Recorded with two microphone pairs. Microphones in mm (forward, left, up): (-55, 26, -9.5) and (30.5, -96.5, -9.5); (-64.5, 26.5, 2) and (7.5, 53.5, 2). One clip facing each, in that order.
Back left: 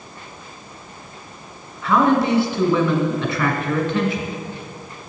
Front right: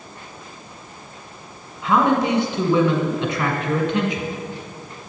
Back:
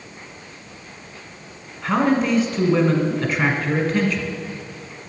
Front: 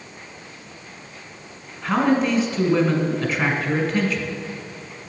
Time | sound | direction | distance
1.8 | a man speaking | 75° right | 1.4 m